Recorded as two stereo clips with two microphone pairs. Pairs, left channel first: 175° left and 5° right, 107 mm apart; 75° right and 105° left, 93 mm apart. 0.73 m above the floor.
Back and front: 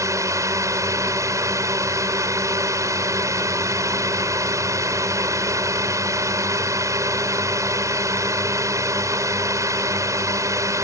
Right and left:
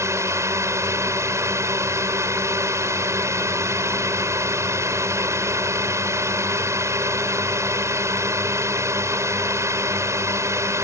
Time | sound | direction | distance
0.0 | a drone | 50° left | ?